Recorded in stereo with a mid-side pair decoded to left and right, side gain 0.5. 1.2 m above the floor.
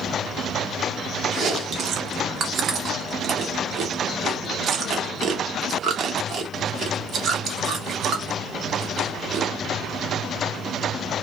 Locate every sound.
1.3 s chewing: 55° right, 0.9 m